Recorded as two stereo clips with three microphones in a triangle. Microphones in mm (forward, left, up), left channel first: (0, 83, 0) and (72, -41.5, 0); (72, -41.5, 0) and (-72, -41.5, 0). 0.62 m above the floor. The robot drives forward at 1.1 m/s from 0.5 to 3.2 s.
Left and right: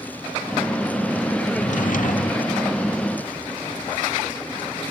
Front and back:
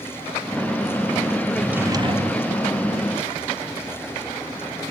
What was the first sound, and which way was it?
A drawer, 85° left.